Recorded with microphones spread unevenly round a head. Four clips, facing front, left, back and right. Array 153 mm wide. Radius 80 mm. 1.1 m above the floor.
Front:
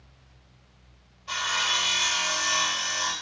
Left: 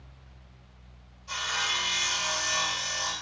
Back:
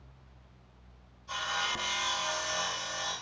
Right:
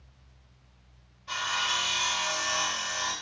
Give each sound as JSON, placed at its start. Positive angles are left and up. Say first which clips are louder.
{"t": 1.3, "sound": "sawing", "louder": "right 2 dB, front 5 dB", "azimuth_deg": -20, "distance_m": 2.5}